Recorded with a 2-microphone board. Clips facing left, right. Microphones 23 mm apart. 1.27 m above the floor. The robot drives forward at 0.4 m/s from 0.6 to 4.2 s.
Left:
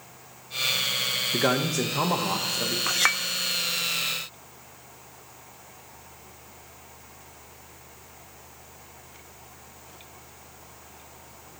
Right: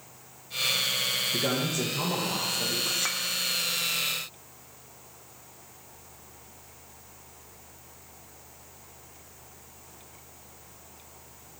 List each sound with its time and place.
1.3 s a man speaking: 70° left (ahead or behind), 1.0 m; by 2.8 s 45° left (ahead or behind), 1.3 m
2.9 s a clink: 70° left (ahead or behind), 0.5 m; by 3.2 s 75° left (ahead or behind), 0.5 m